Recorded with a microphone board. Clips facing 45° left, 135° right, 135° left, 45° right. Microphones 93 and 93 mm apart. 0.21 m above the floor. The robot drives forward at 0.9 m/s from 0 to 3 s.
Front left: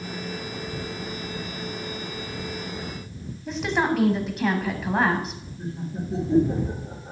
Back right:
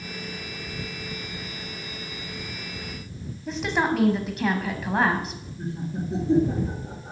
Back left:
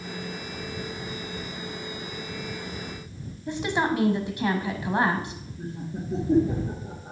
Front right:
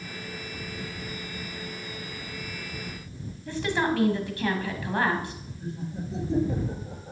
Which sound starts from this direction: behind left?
A woman speaking, at 3.5 s.